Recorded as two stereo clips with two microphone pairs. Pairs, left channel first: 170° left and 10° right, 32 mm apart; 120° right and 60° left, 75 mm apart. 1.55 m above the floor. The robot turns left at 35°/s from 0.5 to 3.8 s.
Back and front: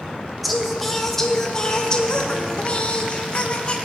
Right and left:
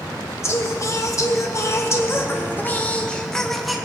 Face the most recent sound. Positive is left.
turn(degrees=145)